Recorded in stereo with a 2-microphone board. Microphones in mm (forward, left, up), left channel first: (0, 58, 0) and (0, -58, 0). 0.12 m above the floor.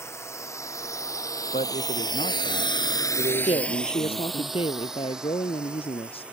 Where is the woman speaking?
55° left (ahead or behind).